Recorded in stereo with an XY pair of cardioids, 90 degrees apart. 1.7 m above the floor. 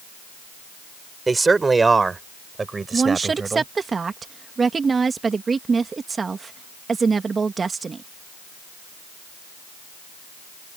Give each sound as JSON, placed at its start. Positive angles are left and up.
{"t": 1.3, "sound": "a man speaking", "azimuth_deg": -30}
{"t": 2.9, "sound": "a woman speaking", "azimuth_deg": -40}